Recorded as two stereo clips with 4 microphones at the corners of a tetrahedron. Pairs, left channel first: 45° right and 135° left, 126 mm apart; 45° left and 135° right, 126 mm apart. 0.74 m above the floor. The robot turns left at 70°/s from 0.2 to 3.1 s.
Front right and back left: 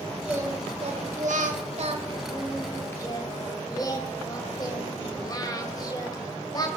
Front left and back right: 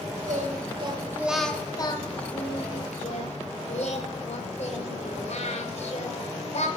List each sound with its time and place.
0.3 s singing: 145° right, 1.7 m; by 6.7 s 15° left, 1.7 m